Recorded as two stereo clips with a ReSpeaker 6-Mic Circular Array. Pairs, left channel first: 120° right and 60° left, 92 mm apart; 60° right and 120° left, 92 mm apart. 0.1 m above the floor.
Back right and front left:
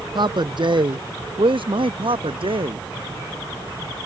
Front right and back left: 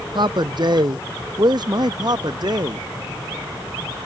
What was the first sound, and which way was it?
A man speaking, 90° left.